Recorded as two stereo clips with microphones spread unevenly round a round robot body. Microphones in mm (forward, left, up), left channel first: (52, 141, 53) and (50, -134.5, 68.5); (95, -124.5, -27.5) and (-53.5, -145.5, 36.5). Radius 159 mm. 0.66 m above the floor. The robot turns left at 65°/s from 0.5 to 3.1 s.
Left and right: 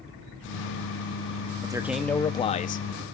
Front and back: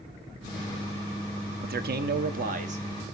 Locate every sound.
1.6 s a man speaking: 160° right, 0.8 m; by 3.1 s 105° left, 0.8 m